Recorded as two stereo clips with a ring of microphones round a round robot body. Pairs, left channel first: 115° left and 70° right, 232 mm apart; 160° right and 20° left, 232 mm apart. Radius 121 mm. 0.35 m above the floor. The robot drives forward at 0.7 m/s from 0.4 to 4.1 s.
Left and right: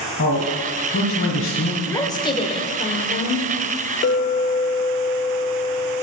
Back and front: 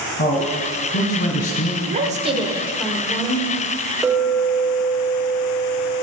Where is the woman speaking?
40° left, 1.1 m; by 3.5 s 145° left, 1.1 m.